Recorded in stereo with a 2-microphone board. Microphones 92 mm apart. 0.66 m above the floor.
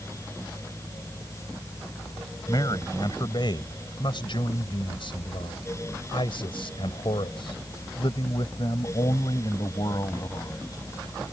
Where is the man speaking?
50° left (ahead or behind); by 10.8 s 45° left (ahead or behind).